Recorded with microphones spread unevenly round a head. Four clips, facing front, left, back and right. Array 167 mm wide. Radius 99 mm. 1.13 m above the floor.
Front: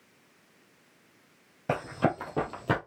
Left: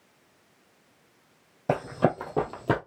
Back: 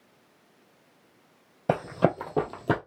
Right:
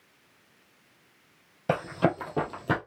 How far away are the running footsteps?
About 1.5 m.